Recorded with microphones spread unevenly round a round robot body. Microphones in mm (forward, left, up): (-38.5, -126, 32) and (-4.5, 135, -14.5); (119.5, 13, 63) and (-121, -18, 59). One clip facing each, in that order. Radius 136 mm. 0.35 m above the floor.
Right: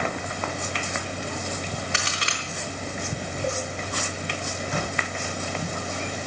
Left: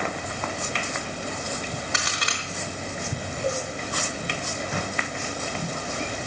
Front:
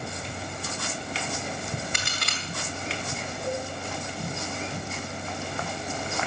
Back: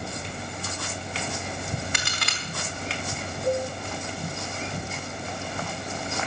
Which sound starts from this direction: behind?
A crack, at 1.9 s.